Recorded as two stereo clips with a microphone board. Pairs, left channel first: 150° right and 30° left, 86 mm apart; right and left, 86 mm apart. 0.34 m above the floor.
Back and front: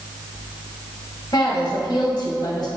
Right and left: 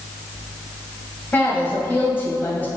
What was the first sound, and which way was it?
A woman speaking, 150° right.